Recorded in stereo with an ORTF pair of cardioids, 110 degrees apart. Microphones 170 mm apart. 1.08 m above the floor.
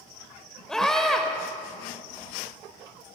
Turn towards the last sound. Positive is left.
turn(degrees=0)